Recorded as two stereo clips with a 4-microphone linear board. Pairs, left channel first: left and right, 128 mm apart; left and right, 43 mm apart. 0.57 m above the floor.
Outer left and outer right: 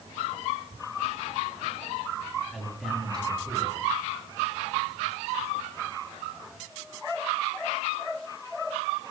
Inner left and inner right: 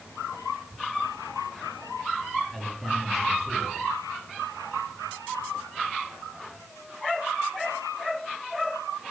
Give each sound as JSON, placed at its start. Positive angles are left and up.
{"t": 2.5, "sound": "a man speaking", "side_deg": 5, "distance_m": 7.0}